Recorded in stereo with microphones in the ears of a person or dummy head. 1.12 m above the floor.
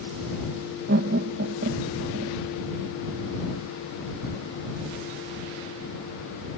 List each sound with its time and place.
0.9 s laughter: 55° right (ahead or behind)